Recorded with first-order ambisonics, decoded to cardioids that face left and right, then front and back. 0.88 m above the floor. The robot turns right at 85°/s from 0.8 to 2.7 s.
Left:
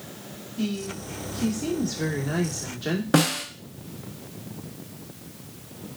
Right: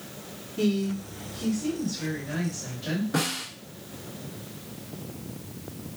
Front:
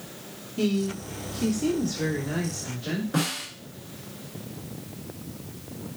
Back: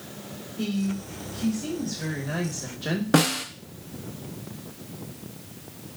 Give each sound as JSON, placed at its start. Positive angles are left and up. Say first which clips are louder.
{"t": 0.6, "sound": "a woman speaking", "louder": "right 4 dB, front 4 dB", "azimuth_deg": -40, "distance_m": 1.6}
{"t": 3.1, "sound": "a snare drum", "louder": "left 7 dB, back 8 dB", "azimuth_deg": 135, "distance_m": 0.7}